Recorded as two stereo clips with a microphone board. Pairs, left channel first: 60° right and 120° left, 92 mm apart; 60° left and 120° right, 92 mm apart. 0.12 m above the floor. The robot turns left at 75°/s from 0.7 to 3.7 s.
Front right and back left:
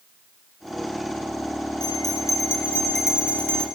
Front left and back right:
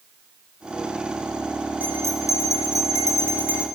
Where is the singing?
No singing in this recording.